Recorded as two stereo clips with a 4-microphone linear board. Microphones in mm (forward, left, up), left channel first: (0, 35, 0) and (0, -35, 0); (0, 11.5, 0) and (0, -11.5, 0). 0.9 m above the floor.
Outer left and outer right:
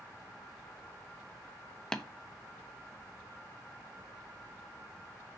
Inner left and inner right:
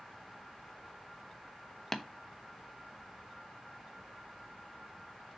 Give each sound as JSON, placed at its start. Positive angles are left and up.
{"t": 1.9, "sound": "tapping", "side_deg": 10, "distance_m": 0.9}